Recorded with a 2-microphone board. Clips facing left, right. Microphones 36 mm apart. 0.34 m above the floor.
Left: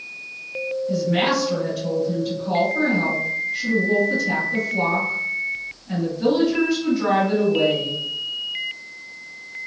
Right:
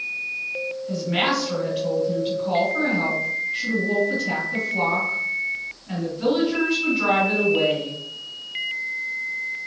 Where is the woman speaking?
35° right (ahead or behind), 2.0 m.